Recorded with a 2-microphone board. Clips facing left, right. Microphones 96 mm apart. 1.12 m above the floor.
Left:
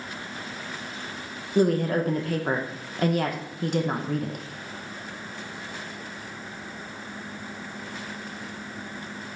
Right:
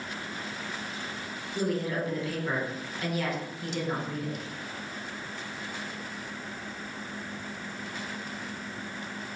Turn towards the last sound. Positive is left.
turn(degrees=55)  # may be behind; listen again after turning